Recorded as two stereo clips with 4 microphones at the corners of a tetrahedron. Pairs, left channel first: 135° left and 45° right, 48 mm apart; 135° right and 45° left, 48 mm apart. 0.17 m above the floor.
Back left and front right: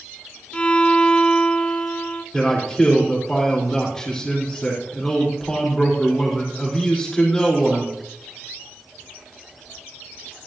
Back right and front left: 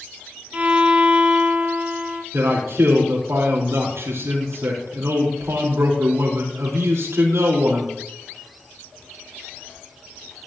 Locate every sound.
0.5 s a violin: 85° left, 1.0 m
2.3 s a man speaking: 55° left, 4.5 m